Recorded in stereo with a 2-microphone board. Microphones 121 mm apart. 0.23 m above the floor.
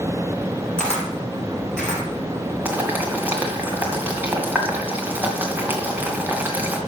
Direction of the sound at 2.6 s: 15° right (ahead or behind).